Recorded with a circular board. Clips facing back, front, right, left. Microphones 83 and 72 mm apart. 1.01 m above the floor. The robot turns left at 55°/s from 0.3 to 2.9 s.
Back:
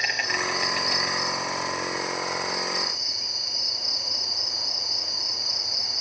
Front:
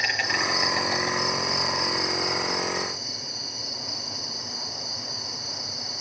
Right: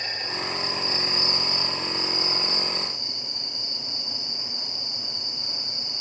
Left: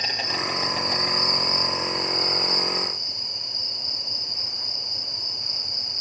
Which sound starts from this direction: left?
An insect, at 0.0 s.